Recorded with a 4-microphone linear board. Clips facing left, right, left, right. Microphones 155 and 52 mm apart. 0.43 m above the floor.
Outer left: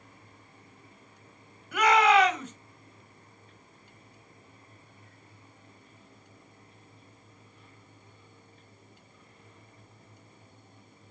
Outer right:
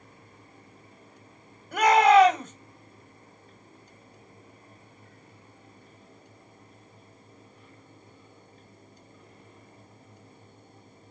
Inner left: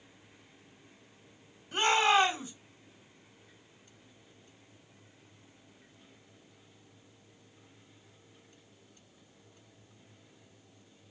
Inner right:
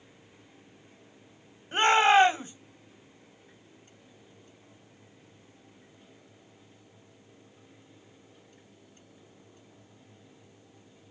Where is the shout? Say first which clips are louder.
Outer right 4 dB, inner right 5 dB; 50° right (ahead or behind), 2.5 m.